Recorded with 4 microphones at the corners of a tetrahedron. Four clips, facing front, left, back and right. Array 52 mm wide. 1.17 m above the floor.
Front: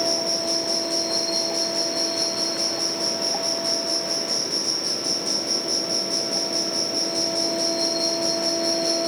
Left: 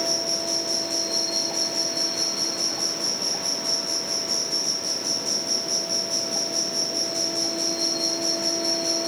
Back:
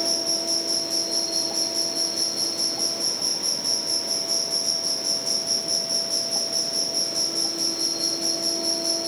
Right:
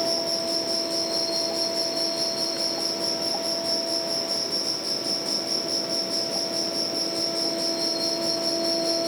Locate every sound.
0.0 s an insect: 30° left, 2 m